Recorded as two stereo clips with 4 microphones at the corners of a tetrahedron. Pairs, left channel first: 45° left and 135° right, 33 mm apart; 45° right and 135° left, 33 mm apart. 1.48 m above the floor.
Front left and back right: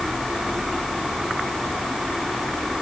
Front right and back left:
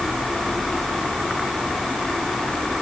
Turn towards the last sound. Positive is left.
No sound to turn to.